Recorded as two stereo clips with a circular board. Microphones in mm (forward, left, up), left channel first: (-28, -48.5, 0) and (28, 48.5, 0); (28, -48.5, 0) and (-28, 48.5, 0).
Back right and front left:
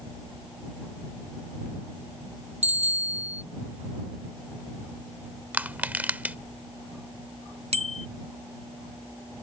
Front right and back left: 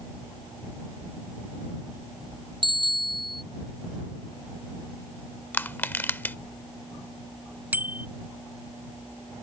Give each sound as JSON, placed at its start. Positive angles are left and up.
{"t": 2.6, "sound": "a bicycle bell", "azimuth_deg": 75}
{"t": 5.5, "sound": "crushing", "azimuth_deg": -5}
{"t": 7.7, "sound": "a bicycle bell", "azimuth_deg": 45}